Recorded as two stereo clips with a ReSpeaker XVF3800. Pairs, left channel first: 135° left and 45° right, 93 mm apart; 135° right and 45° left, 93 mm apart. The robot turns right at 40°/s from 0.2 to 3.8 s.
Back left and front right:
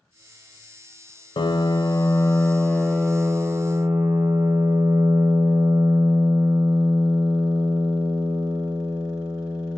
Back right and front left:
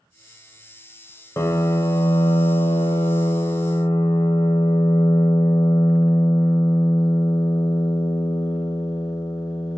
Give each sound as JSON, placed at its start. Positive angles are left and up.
{"t": 1.4, "sound": "a piano", "azimuth_deg": 165, "distance_m": 0.5}